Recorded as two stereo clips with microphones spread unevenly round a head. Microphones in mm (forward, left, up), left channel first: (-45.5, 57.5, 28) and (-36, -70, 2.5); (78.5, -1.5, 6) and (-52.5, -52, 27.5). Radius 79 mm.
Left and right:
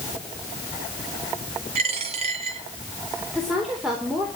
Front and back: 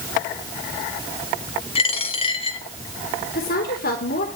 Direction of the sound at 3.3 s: 5° left.